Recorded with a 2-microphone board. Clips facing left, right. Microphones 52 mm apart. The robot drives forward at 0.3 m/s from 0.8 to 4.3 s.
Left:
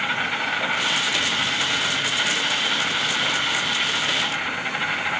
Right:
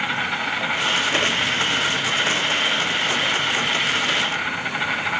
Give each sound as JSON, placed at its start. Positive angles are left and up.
{"t": 0.0, "sound": "an insect", "side_deg": 0, "distance_m": 1.9}